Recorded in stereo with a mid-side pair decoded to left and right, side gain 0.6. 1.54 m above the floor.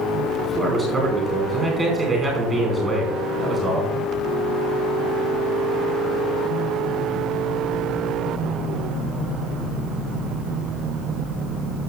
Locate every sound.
0.4 s a man speaking: 20° right, 4.5 m